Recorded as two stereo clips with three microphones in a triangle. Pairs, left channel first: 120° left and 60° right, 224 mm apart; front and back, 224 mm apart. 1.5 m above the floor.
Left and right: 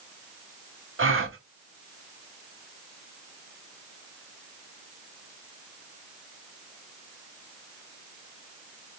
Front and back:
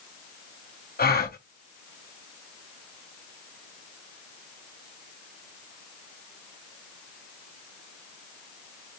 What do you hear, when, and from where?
1.0 s a gasp: 40° right, 0.7 m